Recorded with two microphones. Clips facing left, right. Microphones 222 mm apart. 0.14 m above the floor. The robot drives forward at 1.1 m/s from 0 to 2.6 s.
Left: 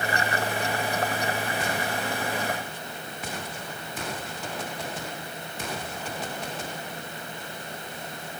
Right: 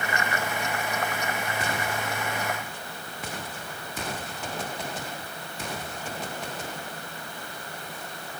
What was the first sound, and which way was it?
Only background noise.